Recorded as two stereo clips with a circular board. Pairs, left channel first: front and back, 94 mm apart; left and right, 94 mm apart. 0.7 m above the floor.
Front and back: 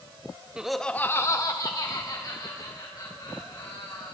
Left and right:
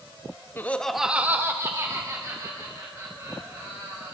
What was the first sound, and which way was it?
Laughter, 110° left.